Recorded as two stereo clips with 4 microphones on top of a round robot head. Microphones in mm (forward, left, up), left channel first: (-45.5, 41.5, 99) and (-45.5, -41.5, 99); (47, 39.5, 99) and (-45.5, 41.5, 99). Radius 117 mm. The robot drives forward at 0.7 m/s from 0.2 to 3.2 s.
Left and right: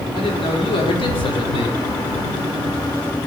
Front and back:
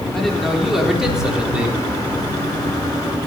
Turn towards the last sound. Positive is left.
turn(degrees=115)